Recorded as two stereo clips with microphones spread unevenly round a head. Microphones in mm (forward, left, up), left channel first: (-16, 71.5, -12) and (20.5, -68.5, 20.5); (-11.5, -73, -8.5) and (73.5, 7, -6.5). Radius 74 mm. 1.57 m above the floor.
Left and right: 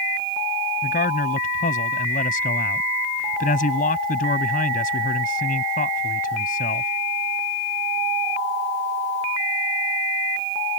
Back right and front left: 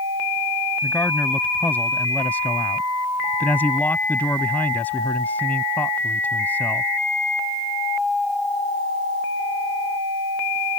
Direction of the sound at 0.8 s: 145° left.